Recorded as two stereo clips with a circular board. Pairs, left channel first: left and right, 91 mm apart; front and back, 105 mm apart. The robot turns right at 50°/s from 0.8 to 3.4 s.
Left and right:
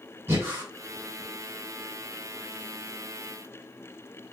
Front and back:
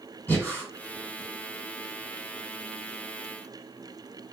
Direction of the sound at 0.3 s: 55° right.